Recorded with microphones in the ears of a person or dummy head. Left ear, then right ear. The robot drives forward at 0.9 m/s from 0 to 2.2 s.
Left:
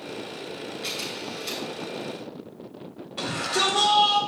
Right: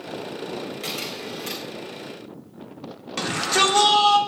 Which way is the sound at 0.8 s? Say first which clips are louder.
Left 1 dB; 40° right (ahead or behind).